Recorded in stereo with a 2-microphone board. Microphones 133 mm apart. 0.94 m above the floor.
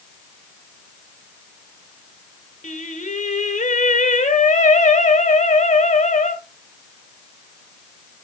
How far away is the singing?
About 1.4 m.